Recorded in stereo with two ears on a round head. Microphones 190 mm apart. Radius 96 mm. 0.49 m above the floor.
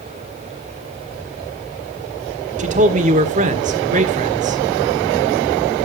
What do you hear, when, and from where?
2.6 s a man speaking: 35° right (ahead or behind), 1.5 m